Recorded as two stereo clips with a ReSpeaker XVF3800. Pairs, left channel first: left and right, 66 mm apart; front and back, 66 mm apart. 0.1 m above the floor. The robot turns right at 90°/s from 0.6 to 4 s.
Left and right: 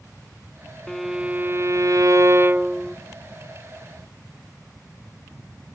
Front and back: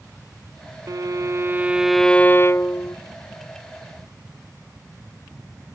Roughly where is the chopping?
No chopping in this recording.